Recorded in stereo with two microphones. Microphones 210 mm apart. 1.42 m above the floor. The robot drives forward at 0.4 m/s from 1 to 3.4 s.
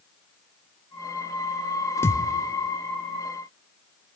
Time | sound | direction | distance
2.0 | a thud | 10° left (ahead or behind) | 1.1 m